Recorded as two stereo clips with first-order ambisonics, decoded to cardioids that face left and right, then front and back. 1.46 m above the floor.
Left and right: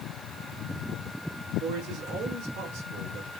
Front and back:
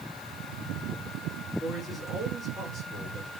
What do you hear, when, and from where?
1.6 s a man speaking: 90° right, 4 m